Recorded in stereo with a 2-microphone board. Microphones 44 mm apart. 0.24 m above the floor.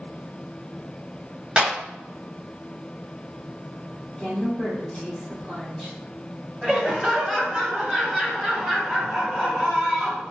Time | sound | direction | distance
1.6 | a clap | 20° right (ahead or behind) | 1.0 m
4.2 | a woman speaking | 10° left (ahead or behind) | 1.8 m
6.6 | laughter | 20° right (ahead or behind) | 1.0 m